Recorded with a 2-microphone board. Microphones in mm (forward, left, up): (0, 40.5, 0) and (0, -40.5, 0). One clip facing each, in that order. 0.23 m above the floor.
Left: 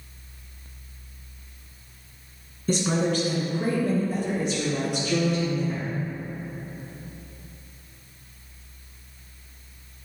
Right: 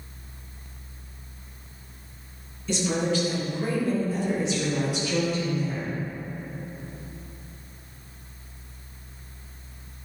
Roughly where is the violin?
No violin in this recording.